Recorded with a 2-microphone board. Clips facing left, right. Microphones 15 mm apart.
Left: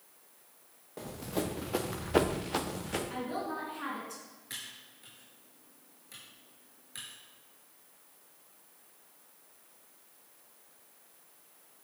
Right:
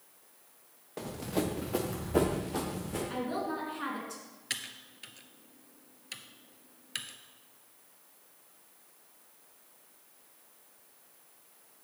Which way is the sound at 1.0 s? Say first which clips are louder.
Right 2 dB; 25° right (ahead or behind).